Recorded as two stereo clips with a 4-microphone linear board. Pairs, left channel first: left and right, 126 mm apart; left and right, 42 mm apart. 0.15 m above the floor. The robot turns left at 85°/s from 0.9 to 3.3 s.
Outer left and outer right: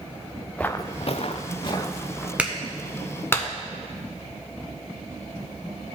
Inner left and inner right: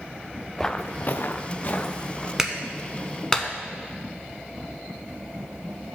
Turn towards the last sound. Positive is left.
turn(degrees=20)  # may be behind; listen again after turning